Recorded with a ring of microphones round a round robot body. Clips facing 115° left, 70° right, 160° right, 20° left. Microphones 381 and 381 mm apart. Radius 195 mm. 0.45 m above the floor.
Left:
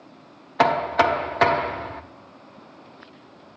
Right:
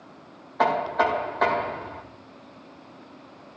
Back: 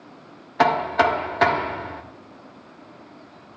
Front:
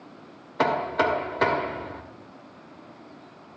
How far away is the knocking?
About 1.0 m.